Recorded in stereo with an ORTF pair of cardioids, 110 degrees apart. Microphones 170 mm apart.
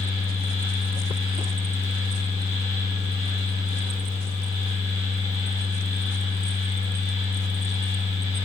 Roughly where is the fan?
Ahead left.